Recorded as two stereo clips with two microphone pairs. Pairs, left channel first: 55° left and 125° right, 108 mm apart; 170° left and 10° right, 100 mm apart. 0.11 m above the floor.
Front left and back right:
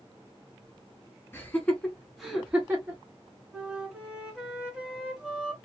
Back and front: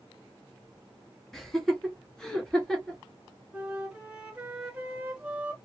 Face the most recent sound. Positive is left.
turn(degrees=-60)